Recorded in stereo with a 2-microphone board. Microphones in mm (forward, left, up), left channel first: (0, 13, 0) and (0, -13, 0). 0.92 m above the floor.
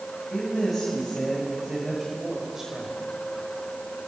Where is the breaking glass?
No breaking glass in this recording.